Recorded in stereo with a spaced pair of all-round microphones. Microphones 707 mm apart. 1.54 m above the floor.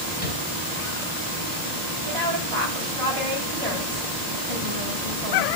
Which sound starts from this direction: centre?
Tapping, at 0.2 s.